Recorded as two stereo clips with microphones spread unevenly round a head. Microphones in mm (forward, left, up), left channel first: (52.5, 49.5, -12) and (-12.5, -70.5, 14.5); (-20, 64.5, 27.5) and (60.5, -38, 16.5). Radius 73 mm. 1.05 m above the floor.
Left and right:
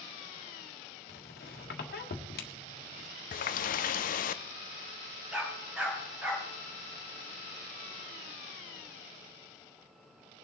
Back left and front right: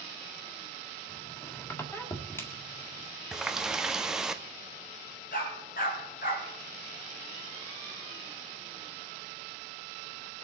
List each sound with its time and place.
1.1 s a squeak: 55° left, 1.7 m
3.3 s a running tap: 35° left, 0.6 m
5.3 s a dog barking: 160° left, 3.5 m